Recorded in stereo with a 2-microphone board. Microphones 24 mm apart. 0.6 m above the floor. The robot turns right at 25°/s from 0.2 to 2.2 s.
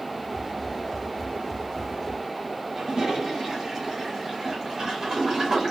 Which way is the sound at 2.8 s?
15° right (ahead or behind).